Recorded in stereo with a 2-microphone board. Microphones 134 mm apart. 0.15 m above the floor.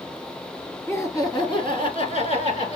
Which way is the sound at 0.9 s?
20° left (ahead or behind).